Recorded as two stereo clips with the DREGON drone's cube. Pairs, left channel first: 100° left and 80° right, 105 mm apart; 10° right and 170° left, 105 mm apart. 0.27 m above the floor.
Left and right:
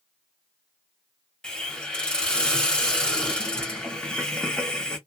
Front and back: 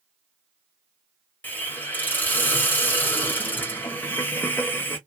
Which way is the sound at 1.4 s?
35° left.